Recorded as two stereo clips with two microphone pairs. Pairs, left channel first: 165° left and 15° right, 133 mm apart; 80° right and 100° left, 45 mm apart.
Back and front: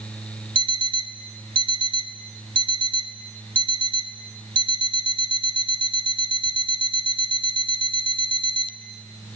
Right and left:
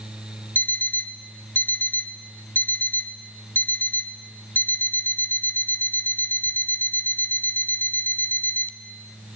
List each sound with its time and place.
0.6 s an alarm clock: 55° right, 1.2 m